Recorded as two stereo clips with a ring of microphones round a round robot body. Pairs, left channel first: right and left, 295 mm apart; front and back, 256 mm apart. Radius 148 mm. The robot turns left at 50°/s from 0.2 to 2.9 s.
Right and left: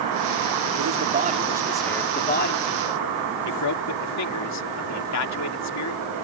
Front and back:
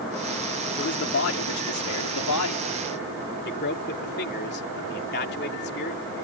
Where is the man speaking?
50° left; by 6.0 s 55° right.